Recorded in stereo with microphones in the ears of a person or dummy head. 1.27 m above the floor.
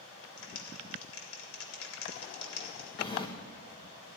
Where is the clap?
80° left, 2 m.